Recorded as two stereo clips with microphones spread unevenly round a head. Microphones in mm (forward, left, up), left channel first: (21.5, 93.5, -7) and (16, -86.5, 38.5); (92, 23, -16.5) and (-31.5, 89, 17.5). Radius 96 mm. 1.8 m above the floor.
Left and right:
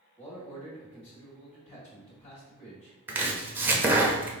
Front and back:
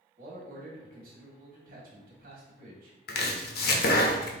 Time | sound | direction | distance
0.2 | a man speaking | 145° left | 1.9 m
3.1 | chopping | 20° right | 0.7 m